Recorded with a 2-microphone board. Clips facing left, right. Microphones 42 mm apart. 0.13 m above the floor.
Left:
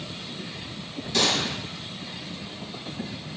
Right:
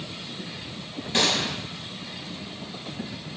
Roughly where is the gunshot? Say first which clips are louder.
Even; right.